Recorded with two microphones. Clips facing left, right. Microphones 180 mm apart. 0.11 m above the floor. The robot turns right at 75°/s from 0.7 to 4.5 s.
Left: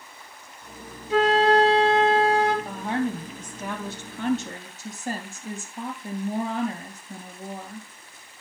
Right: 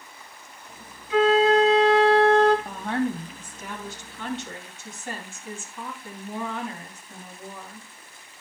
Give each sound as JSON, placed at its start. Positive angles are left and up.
{"t": 1.1, "sound": "a flute", "azimuth_deg": 65, "distance_m": 1.9}
{"t": 2.6, "sound": "a woman speaking", "azimuth_deg": 0, "distance_m": 3.5}